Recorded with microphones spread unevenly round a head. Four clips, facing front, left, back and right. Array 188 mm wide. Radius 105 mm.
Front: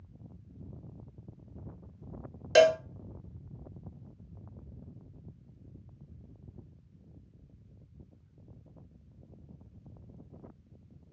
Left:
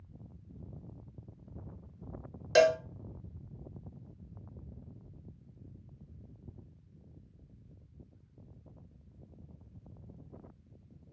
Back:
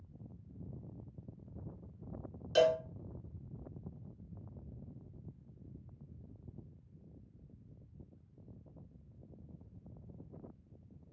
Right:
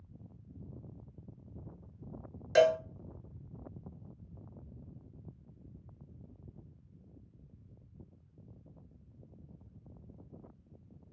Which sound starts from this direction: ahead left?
A cowbell, at 2.5 s.